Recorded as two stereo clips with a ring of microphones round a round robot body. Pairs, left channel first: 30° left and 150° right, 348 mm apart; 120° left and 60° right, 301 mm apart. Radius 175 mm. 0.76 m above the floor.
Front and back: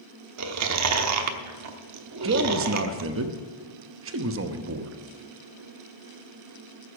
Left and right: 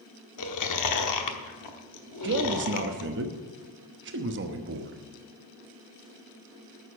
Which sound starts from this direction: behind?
Chewing, at 0.4 s.